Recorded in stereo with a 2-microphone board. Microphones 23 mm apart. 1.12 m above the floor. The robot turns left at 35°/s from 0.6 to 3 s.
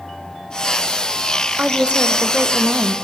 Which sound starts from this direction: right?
A woman speaking, at 1.6 s.